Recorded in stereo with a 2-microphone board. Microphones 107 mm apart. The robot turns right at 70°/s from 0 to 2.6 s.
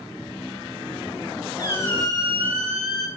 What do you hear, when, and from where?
1.6 s a squeak: 140° left, 1.5 m; by 3.1 s 150° right, 1.5 m